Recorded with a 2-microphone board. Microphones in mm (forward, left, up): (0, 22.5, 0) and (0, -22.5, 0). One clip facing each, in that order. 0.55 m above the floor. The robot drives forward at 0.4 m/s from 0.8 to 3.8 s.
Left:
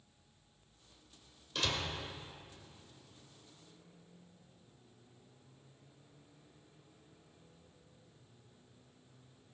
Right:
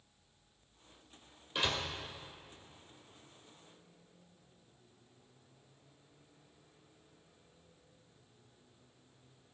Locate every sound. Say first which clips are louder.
1.6 s a door slam: right 2 dB; 15° right (ahead or behind), 1.9 m